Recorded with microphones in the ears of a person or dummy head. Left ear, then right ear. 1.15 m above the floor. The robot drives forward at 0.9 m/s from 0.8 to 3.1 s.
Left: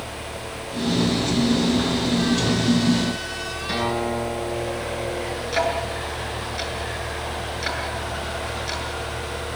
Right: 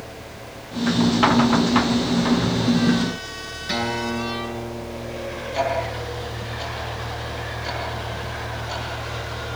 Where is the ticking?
60° left (ahead or behind), 7.5 m.